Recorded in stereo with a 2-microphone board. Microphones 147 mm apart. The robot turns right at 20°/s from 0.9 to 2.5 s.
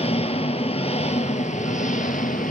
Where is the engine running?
50° left, 0.9 m; by 2.5 s 80° left, 0.9 m.